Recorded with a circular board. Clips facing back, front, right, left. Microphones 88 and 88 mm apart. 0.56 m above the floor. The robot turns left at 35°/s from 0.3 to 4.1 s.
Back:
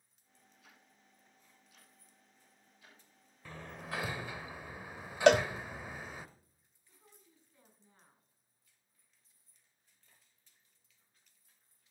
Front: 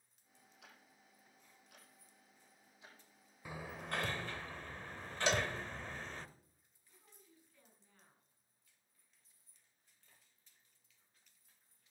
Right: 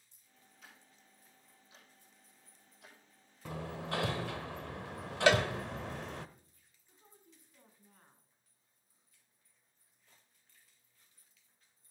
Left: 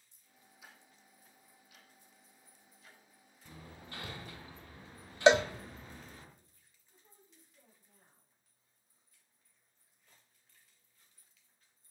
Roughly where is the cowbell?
Behind left.